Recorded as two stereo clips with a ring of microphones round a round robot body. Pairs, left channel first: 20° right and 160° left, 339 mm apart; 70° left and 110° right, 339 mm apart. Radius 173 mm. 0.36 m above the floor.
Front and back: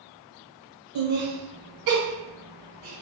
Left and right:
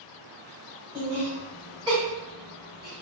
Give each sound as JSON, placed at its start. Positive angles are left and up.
{"t": 0.9, "sound": "laughter", "azimuth_deg": 175, "distance_m": 1.2}